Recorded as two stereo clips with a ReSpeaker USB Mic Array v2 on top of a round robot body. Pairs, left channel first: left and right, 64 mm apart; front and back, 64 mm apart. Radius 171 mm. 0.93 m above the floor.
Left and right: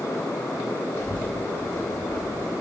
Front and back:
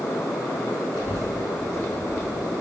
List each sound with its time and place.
0.9 s a child speaking: 145° left, 3 m; by 2.5 s 160° left, 3 m